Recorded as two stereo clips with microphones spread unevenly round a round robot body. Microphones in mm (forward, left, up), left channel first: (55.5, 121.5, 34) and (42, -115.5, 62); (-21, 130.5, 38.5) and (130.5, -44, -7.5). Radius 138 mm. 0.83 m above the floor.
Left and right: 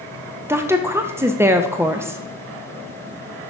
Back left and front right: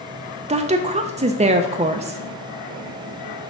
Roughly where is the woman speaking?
Ahead.